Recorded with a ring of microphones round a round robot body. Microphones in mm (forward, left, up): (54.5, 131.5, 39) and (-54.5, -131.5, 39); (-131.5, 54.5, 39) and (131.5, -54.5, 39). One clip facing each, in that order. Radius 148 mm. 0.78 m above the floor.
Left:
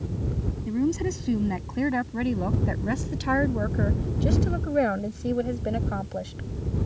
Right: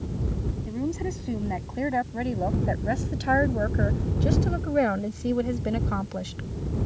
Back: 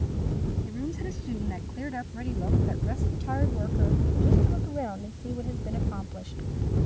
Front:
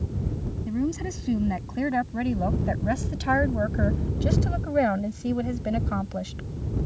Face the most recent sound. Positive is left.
turn(degrees=-40)